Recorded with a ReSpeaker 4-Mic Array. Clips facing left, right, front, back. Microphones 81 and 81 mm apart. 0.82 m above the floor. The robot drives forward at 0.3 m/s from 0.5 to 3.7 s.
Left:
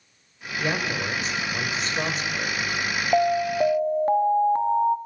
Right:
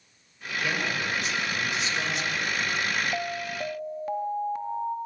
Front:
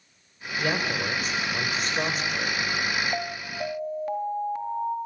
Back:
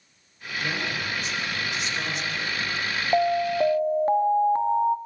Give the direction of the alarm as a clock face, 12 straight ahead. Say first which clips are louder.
Left 11 dB, back 11 dB; 8 o'clock.